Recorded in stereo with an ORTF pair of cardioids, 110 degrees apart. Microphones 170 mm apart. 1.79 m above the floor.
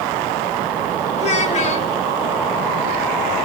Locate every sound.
1.2 s a child speaking: 45° left, 4 m